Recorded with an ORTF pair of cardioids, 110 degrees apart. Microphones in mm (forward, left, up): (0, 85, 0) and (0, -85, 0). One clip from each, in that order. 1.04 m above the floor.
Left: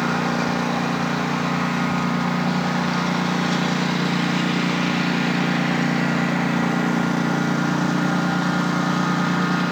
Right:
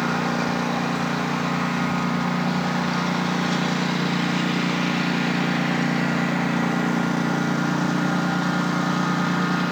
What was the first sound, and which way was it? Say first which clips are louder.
A lawn mower: left 1 dB; 5° left.